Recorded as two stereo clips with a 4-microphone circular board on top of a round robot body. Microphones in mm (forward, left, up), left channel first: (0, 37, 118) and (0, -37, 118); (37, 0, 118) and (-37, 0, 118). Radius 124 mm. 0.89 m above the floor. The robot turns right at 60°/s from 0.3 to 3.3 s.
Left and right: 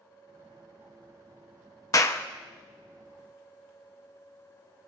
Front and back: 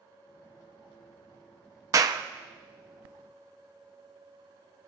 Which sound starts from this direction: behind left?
A clap, at 1.9 s.